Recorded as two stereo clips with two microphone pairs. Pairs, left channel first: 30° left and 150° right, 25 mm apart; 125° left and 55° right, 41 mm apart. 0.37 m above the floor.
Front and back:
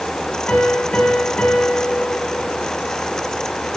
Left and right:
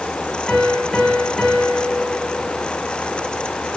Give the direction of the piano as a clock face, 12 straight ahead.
11 o'clock.